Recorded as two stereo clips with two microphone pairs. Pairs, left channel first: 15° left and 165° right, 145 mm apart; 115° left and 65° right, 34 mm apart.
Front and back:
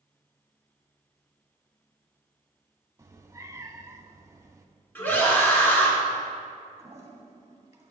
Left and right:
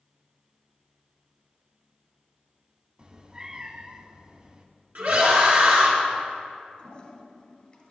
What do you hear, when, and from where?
3.0 s a cat meowing: 105° right, 0.5 m
5.0 s a scream: 60° right, 2.5 m
6.8 s a toilet flushing: 145° left, 1.1 m